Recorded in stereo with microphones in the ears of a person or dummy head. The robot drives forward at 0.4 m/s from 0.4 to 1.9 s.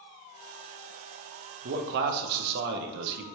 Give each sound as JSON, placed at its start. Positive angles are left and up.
{"t": 1.6, "sound": "a man speaking", "side_deg": -50, "distance_m": 0.8}